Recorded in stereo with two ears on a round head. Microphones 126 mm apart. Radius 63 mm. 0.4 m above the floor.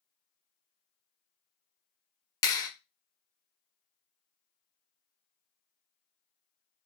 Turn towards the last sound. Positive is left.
turn(degrees=25)  # may be behind; listen again after turning